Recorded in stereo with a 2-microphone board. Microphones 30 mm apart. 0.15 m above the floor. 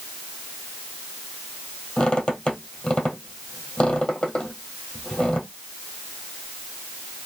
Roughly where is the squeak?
Left.